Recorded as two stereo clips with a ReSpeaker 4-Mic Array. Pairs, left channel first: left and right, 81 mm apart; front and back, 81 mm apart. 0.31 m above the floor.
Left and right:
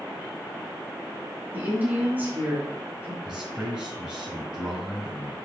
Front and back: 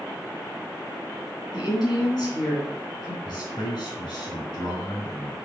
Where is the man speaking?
10° right, 4 m.